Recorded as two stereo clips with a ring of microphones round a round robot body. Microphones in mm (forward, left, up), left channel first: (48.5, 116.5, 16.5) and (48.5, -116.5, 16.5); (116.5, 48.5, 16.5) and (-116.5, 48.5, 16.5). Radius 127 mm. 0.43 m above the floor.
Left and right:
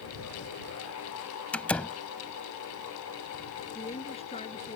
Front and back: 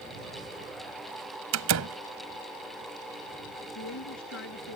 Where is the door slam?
175° left.